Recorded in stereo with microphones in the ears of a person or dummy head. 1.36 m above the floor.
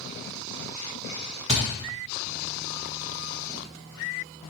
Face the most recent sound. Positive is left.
turn(degrees=-25)  # may be behind; listen again after turning